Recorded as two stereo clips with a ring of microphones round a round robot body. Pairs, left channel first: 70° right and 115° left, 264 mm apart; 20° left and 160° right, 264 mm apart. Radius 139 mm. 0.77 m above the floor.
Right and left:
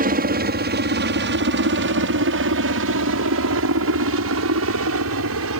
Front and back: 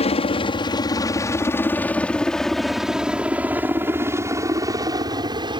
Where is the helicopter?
80° left; by 5.6 s 135° left.